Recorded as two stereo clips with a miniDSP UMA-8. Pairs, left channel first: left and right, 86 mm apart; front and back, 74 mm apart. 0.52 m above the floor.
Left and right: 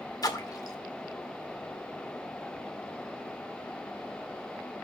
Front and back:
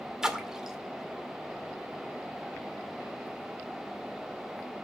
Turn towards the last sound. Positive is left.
turn(degrees=100)